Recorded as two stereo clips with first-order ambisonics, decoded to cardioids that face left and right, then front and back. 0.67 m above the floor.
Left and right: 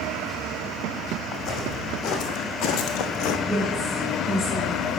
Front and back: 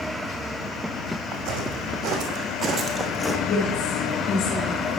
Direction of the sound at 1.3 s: 145° left.